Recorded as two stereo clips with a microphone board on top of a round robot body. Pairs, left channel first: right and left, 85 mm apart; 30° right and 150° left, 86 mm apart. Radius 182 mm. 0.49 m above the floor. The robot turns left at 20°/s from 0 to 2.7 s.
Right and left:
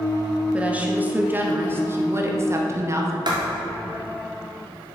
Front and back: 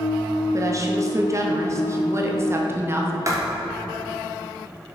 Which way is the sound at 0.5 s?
155° left.